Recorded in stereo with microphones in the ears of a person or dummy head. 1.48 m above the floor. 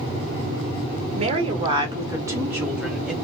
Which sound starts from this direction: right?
A woman speaking, at 1.1 s.